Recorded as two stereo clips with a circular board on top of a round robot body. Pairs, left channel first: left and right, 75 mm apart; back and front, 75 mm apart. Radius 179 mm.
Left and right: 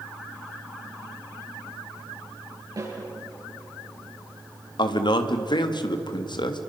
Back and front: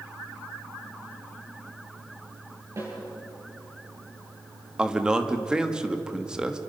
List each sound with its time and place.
2.8 s a snare drum: 50° right, 9.5 m
4.8 s a man speaking: 80° left, 1.7 m